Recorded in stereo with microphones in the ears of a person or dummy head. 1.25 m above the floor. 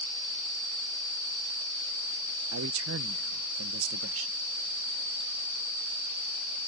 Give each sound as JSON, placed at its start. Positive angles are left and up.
{"t": 2.5, "sound": "a man speaking", "side_deg": -80}